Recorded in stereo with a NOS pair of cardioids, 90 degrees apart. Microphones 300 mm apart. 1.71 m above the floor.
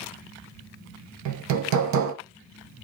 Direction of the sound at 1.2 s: 70° right.